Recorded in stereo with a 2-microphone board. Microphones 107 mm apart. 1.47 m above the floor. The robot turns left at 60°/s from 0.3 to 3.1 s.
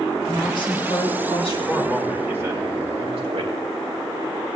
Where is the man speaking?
15° left, 3 m; by 3.5 s 70° right, 3 m.